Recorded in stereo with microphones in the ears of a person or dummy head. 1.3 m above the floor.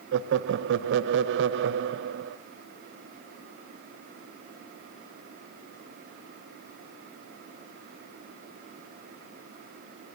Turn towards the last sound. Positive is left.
turn(degrees=-70)  # may be behind; listen again after turning